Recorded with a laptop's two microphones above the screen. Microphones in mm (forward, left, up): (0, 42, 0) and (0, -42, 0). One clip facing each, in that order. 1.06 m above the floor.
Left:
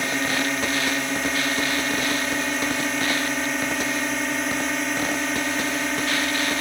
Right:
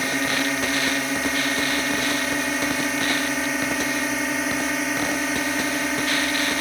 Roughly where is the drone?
Centre.